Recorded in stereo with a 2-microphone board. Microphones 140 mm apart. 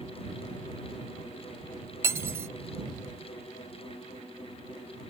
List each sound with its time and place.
2.0 s cutlery clinking: 15° right (ahead or behind)